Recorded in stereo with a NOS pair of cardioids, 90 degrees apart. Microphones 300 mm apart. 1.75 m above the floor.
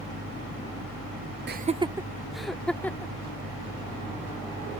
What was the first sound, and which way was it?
Laughter, 40° right.